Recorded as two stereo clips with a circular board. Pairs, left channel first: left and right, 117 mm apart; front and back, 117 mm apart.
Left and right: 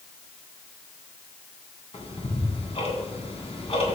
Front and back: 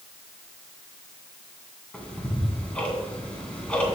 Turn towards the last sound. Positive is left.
turn(degrees=80)